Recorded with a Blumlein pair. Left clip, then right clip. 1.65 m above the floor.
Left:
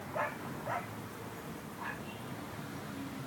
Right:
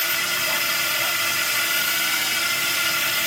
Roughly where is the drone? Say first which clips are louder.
Right 15 dB; ahead right.